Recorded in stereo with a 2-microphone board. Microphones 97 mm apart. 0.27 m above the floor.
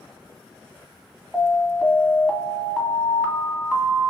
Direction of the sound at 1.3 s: 5° right (ahead or behind).